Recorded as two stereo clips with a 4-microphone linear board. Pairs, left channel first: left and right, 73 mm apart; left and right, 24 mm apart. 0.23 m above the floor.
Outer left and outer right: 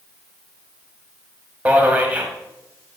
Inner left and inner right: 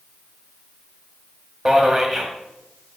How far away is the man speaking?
About 1.2 m.